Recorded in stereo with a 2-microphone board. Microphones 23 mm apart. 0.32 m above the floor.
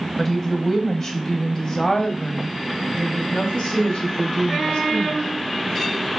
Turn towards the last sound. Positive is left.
turn(degrees=60)  # may be behind; listen again after turning